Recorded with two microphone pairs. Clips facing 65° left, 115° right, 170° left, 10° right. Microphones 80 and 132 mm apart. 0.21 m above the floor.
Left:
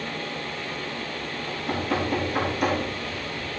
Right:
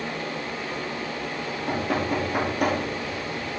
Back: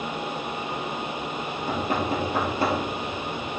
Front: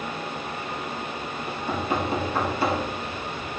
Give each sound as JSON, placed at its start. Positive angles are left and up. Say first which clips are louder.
{"t": 1.5, "sound": "knocking", "louder": "even, front 1 dB", "azimuth_deg": -145, "distance_m": 2.5}